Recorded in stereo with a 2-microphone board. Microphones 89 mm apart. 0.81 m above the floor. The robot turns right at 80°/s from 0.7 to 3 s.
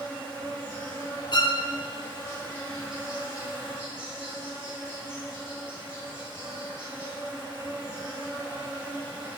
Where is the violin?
55° left (ahead or behind), 0.6 m; by 1.6 s 60° left (ahead or behind), 0.6 m.